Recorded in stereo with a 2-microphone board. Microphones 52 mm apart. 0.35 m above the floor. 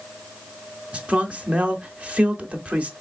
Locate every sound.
0.9 s a man speaking: 25° right (ahead or behind), 0.9 m